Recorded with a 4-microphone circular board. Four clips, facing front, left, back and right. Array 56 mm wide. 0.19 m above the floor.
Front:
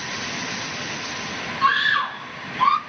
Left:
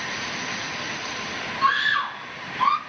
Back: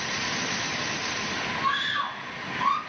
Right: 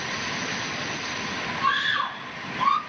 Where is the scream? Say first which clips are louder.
Left 3 dB, front 9 dB; 25° left, 2.0 m; by 2.8 s 15° left, 1.4 m.